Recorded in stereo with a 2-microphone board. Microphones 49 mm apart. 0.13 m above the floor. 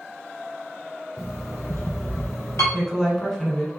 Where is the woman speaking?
10° left (ahead or behind), 1.4 m.